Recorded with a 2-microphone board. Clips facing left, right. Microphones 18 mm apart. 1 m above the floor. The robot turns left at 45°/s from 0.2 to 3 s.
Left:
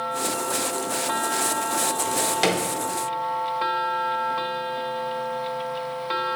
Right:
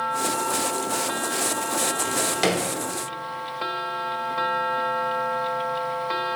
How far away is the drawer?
About 0.6 m.